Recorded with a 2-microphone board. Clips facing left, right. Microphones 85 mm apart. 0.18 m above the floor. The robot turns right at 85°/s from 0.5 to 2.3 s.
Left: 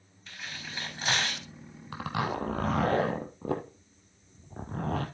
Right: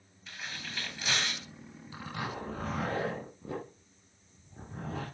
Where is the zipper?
65° left (ahead or behind), 1.8 m; by 5.1 s 75° left (ahead or behind), 1.8 m.